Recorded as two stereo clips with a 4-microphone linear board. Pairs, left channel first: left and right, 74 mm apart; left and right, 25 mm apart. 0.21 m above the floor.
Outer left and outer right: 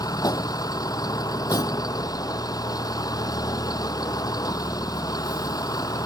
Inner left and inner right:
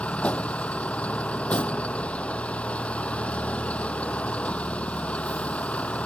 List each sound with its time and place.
0.0 s a vehicle: 60° left (ahead or behind)